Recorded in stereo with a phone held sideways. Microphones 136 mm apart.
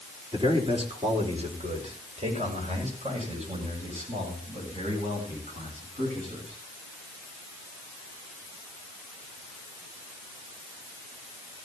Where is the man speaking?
40° right (ahead or behind), 3.5 m; by 6.6 s 60° right (ahead or behind), 13 m.